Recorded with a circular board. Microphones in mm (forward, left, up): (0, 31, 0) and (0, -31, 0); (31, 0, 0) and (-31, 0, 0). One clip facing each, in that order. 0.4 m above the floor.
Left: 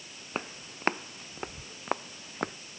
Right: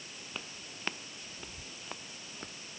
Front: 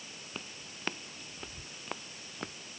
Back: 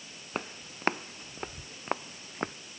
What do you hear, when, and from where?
0.3 s footsteps: 140° left; by 2.6 s 125° left